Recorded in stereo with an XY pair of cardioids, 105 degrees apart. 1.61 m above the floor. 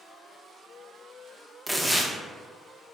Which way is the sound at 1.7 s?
Straight ahead.